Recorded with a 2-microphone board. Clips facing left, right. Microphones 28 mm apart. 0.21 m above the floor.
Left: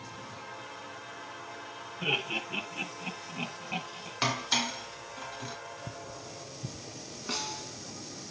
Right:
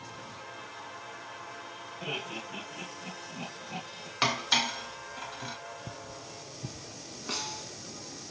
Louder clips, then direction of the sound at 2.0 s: Left 6 dB; 45° left (ahead or behind).